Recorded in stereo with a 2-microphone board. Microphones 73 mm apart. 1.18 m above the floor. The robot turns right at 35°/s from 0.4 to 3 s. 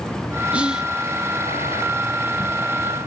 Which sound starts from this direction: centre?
Whispering, at 0.5 s.